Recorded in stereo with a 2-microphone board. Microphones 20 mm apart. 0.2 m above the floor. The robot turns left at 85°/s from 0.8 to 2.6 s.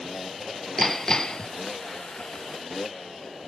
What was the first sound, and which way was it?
Hammering, 160° left.